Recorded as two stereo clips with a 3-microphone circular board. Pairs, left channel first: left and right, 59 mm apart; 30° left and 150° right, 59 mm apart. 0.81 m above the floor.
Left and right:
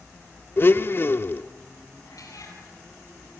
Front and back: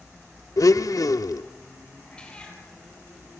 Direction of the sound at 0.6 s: 40° left.